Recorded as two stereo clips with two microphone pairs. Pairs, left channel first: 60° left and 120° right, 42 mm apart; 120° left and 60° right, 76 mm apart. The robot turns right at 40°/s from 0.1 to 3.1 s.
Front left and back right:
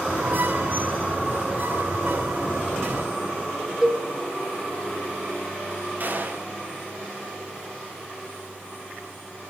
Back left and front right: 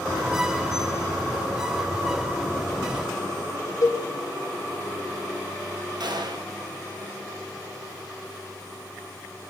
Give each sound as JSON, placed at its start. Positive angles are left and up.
{"t": 3.8, "sound": "a cowbell", "azimuth_deg": 160, "distance_m": 1.1}
{"t": 6.0, "sound": "a gunshot", "azimuth_deg": -75, "distance_m": 1.0}